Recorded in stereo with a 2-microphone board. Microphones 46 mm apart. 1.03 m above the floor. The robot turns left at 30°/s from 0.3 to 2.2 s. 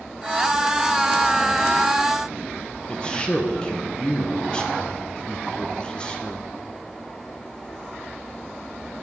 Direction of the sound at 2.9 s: 20° left (ahead or behind).